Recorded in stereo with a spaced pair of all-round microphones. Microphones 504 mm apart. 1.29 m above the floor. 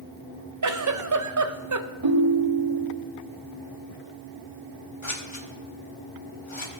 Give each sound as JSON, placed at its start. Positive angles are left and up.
{"t": 0.6, "sound": "a giggle", "side_deg": -40, "distance_m": 0.5}
{"t": 2.0, "sound": "a ringtone", "side_deg": -60, "distance_m": 1.5}
{"t": 5.0, "sound": "scissors", "side_deg": 70, "distance_m": 1.4}